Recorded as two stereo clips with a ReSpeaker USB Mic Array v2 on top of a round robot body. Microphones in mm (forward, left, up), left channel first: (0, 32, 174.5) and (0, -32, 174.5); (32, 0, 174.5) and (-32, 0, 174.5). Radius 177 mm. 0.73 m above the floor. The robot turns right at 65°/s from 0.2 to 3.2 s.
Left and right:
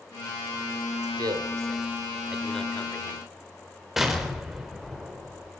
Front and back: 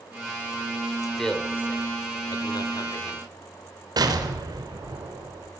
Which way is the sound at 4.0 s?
175° right.